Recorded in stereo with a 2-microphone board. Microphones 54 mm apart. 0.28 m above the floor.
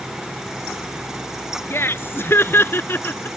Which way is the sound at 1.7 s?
45° left (ahead or behind).